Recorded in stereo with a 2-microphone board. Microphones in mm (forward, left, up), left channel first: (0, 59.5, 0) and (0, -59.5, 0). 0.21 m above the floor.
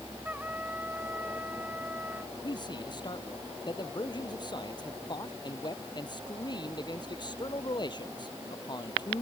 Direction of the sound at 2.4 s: 40° left (ahead or behind).